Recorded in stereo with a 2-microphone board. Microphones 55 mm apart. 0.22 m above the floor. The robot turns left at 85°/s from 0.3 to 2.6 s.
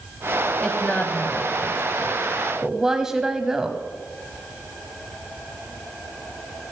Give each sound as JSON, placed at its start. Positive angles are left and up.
{"t": 0.6, "sound": "a woman speaking", "side_deg": 15, "distance_m": 1.0}